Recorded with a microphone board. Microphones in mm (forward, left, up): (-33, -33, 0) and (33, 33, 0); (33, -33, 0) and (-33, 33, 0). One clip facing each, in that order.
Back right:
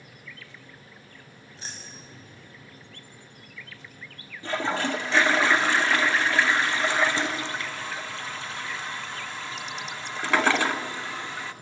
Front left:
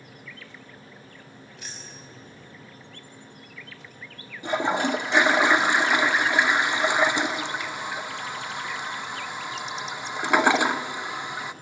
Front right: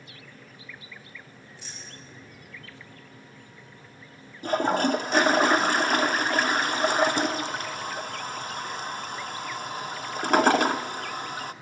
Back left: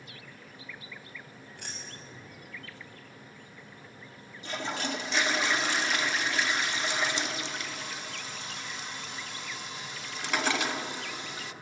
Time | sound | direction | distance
1.6 | keys jangling | 165° left | 6 m
4.4 | a toilet flushing | 25° right | 0.7 m